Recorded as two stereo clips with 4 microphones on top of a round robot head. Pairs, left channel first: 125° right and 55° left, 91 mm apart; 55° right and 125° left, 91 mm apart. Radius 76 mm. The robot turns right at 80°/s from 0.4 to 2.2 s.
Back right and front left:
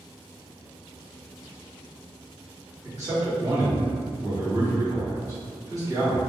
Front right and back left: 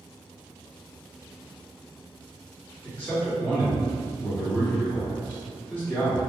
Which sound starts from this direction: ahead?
A man speaking, at 2.8 s.